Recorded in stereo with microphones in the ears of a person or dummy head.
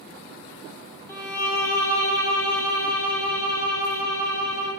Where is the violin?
15° left (ahead or behind), 0.6 m.